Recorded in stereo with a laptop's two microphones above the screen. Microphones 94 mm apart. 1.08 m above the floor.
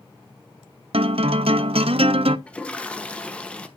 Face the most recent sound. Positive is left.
turn(degrees=10)  # may be behind; listen again after turning